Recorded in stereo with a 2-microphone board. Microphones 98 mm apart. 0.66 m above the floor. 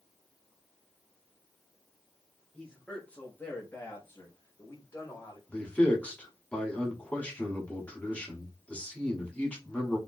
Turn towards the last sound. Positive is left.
turn(degrees=15)  # may be behind; listen again after turning